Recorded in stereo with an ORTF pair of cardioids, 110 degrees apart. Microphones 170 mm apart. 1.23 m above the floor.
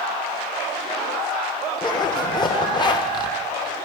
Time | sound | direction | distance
1.8 | a zipper | 25° left | 0.9 m